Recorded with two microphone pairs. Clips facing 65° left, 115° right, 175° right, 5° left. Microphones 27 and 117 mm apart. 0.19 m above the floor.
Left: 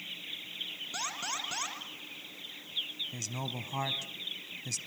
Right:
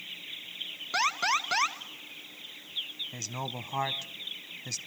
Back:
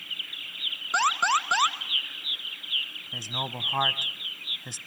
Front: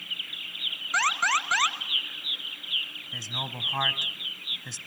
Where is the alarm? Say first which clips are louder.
Right 11 dB, back 2 dB; 120° right, 1.7 m.